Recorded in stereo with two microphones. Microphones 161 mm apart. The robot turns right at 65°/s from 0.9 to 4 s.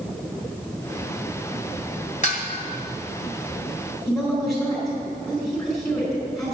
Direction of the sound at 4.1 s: Centre (ahead or behind).